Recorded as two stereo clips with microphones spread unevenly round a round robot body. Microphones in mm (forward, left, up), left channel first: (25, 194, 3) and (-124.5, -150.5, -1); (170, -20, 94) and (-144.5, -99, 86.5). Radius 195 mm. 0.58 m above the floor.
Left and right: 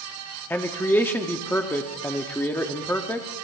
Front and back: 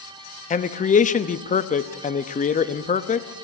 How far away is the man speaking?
About 0.7 m.